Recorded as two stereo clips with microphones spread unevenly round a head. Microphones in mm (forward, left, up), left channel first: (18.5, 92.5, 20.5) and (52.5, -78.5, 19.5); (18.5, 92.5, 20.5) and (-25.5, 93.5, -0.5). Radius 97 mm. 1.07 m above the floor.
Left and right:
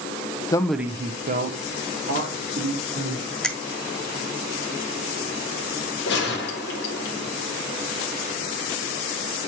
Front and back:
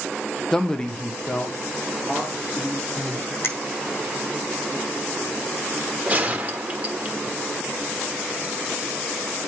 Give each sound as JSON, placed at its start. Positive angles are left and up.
{"t": 0.5, "sound": "a man speaking", "azimuth_deg": 125, "distance_m": 0.5}
{"t": 3.4, "sound": "a finger snap", "azimuth_deg": 15, "distance_m": 1.5}
{"t": 6.1, "sound": "a gunshot", "azimuth_deg": 135, "distance_m": 1.6}